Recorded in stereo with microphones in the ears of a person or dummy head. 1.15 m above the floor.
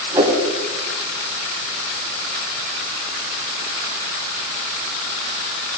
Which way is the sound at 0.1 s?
20° right (ahead or behind).